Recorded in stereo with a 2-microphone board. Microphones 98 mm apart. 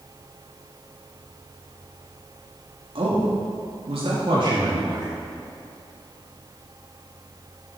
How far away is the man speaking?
About 3 m.